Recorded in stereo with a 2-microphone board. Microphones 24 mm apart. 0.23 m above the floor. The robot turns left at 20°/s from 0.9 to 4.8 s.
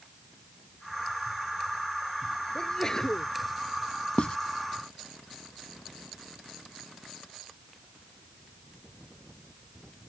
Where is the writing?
50° left (ahead or behind).